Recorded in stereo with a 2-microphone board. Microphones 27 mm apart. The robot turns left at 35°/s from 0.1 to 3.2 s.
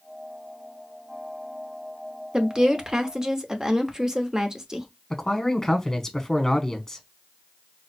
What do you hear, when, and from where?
2.3 s a woman speaking: 95° right, 0.8 m; by 4.9 s 125° right, 0.8 m
5.1 s a man speaking: 25° left (ahead or behind), 1.0 m